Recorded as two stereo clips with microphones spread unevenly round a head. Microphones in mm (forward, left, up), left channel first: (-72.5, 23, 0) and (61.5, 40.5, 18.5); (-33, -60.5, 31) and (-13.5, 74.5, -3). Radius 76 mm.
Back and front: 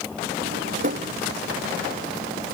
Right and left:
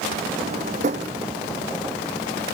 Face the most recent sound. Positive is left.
turn(degrees=35)